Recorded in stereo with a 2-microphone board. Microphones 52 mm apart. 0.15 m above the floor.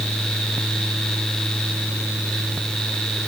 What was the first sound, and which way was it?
Only background noise.